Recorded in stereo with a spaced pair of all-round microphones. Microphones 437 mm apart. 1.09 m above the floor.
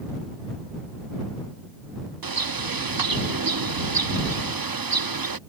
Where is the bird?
50° right (ahead or behind).